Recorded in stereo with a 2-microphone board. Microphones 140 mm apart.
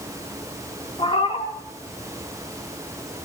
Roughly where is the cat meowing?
Left.